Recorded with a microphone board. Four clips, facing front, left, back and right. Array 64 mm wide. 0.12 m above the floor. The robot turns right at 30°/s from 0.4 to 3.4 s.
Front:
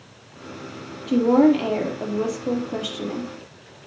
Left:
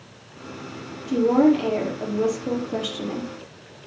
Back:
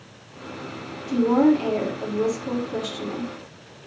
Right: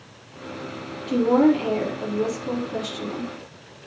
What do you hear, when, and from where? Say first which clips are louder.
1.1 s a woman speaking: even, front 2 dB; 10° right, 3.5 m; by 3.3 s 55° left, 3.5 m